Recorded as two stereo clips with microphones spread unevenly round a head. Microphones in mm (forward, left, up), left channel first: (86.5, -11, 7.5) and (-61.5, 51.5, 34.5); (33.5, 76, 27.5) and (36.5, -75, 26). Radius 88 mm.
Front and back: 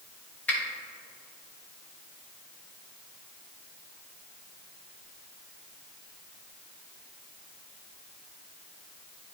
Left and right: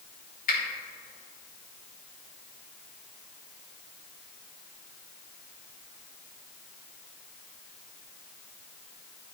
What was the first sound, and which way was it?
A finger snap, 60° left.